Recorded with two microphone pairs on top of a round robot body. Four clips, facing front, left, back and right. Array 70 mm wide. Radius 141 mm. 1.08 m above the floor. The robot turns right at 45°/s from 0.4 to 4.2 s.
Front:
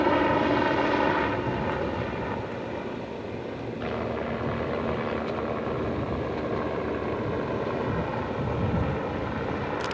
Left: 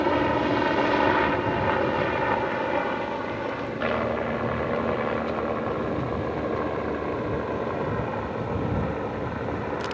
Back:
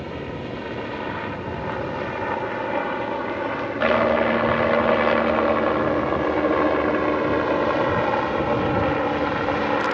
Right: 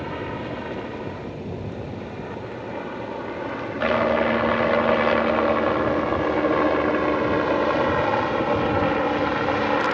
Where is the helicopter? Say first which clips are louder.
Left 8 dB, front 9 dB; 35° left; by 9.9 s 130° right.